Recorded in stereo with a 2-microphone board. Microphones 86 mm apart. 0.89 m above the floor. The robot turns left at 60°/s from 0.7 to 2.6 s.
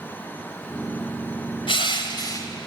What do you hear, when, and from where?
1.7 s crushing: 90° left, 2 m; by 2.5 s 40° left, 2 m